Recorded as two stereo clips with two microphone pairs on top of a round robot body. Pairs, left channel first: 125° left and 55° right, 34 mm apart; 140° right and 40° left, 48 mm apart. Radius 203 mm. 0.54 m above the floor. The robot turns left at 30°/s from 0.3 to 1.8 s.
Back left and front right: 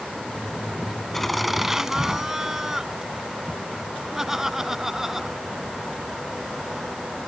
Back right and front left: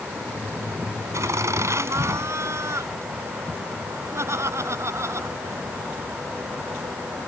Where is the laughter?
40° left; by 5.6 s 20° left.